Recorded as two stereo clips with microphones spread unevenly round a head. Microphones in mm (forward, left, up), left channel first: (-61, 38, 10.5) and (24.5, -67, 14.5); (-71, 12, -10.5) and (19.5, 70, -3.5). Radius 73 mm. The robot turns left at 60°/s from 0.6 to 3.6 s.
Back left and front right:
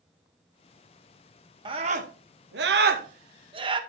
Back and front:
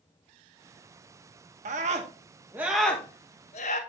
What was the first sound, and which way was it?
A scream, 10° left.